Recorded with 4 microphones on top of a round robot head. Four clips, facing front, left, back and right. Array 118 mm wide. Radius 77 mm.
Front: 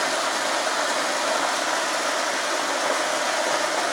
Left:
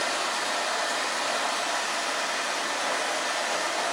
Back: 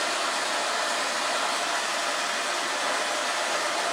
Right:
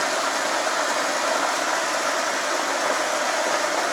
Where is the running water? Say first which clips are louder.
Right 5 dB, front 4 dB; 55° right, 0.7 m.